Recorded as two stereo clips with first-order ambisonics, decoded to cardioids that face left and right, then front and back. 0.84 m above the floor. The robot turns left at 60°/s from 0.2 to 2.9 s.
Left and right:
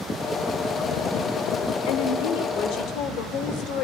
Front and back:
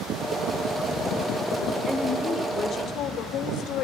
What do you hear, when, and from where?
1.9 s a woman speaking: 110° left, 2 m; by 3.9 s 45° left, 2 m